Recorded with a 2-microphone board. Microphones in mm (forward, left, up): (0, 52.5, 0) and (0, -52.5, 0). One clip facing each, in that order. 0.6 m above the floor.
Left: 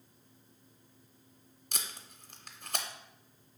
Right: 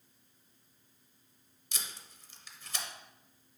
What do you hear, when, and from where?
1.7 s tape being pulled: 55° left (ahead or behind), 0.5 m